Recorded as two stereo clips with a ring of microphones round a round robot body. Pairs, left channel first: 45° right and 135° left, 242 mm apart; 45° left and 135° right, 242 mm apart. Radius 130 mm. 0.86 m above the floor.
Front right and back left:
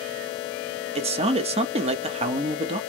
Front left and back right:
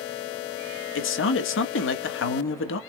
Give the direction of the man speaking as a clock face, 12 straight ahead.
10 o'clock.